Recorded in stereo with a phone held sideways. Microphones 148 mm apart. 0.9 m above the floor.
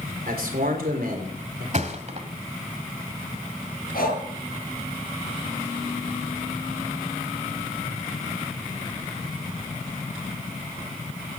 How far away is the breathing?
About 7 m.